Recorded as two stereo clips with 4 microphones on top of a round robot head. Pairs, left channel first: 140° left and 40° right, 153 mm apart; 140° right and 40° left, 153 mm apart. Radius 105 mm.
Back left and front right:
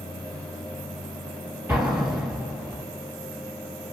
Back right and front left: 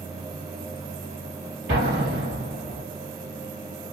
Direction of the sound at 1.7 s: 35° left.